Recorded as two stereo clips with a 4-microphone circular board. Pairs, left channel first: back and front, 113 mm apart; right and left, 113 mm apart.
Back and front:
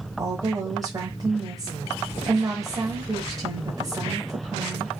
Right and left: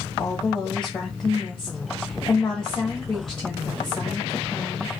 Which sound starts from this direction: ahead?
A woman speaking, at 0.2 s.